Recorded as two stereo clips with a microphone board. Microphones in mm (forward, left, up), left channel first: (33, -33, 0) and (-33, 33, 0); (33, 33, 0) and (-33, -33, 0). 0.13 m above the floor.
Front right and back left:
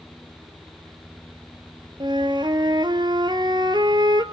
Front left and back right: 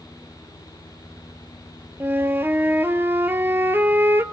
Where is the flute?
160° left, 1.2 m.